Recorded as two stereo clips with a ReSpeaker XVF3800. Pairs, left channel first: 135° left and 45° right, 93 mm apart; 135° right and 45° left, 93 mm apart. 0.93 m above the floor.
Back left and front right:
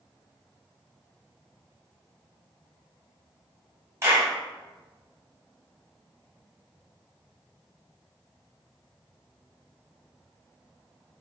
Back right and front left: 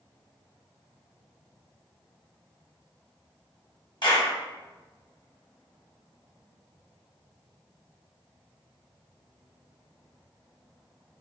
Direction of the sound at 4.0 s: 105° right.